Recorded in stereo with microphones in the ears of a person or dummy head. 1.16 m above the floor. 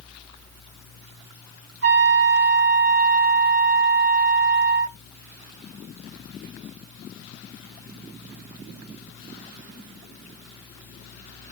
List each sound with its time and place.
1.8 s a trumpet: 65° right (ahead or behind), 1.4 m